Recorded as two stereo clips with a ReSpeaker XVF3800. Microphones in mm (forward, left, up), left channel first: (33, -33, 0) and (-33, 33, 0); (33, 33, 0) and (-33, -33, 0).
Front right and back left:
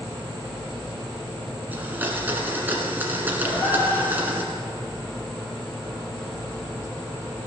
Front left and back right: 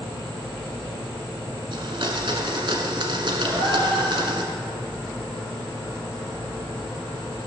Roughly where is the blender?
Behind right.